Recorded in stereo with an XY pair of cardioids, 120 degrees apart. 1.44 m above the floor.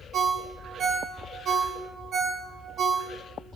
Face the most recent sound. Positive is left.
turn(degrees=-50)